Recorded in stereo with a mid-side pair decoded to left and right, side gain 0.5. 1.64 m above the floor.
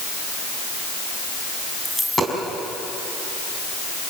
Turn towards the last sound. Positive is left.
turn(degrees=5)